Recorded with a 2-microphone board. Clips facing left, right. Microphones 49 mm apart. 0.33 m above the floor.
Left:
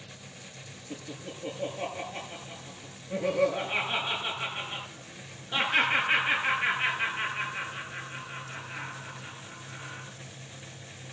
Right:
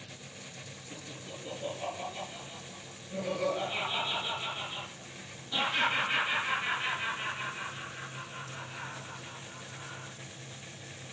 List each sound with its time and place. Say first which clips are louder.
0.9 s laughter: left 5 dB; 40° left (ahead or behind), 7 m